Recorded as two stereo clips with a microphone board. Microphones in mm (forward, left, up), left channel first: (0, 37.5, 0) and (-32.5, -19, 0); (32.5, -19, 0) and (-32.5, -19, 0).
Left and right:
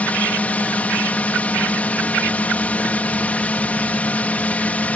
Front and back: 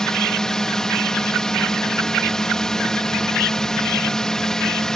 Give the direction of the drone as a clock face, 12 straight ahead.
10 o'clock.